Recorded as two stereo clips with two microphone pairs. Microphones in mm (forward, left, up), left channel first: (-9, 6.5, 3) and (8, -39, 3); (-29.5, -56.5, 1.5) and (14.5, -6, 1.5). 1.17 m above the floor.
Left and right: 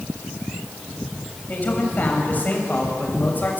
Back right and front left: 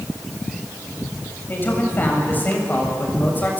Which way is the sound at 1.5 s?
170° left.